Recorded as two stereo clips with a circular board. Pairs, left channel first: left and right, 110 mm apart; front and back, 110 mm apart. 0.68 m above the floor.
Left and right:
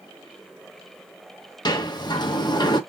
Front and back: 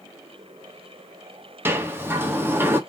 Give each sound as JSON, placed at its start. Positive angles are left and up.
{"t": 1.6, "sound": "a sliding door", "azimuth_deg": 120, "distance_m": 0.7}